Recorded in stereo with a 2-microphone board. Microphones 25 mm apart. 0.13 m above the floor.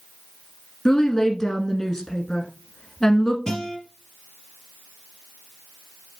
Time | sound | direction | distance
0.8 | a woman speaking | 20° left (ahead or behind) | 1.3 m
3.5 | a guitar | 25° left (ahead or behind) | 3.5 m